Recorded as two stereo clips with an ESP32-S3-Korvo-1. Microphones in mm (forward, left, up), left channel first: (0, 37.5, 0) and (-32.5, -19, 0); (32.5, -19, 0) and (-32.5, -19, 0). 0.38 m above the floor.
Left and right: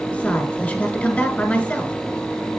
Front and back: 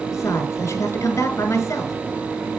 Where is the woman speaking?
5° left, 1.8 m.